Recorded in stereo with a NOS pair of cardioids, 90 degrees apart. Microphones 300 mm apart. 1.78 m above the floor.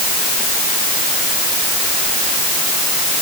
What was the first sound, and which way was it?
Only background noise.